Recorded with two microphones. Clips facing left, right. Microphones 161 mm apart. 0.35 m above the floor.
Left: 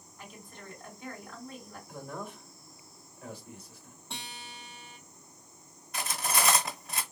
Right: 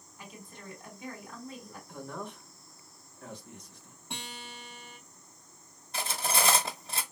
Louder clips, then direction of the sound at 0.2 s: Even; 15° right (ahead or behind).